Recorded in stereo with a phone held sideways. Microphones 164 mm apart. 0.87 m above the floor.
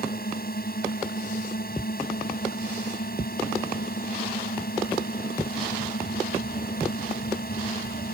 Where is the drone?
65° left (ahead or behind).